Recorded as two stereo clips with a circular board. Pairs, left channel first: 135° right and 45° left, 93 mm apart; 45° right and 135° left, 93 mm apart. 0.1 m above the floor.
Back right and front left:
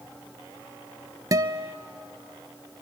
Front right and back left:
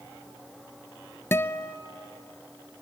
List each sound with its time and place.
1.3 s a guitar: 10° left, 0.6 m